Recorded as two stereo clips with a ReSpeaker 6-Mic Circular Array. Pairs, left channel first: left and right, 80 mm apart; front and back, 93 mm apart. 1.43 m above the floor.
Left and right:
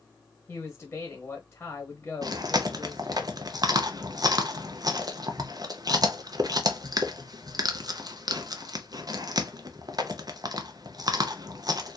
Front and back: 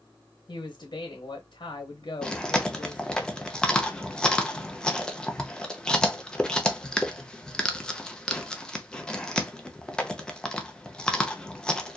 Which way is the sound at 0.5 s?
20° left.